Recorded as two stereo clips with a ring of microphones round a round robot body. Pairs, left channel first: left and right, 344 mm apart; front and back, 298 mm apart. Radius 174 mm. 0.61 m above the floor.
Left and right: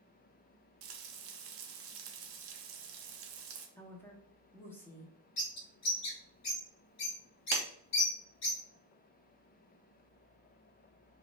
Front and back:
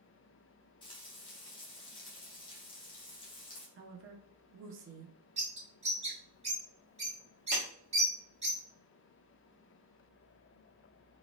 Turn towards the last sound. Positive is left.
turn(degrees=-105)